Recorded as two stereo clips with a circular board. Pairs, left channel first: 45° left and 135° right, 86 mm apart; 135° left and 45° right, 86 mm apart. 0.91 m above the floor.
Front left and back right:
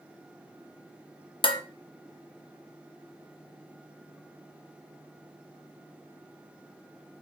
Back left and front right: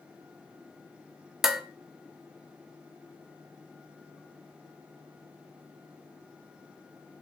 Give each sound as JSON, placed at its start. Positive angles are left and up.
{"t": 1.4, "sound": "dishes clattering", "azimuth_deg": 40, "distance_m": 0.5}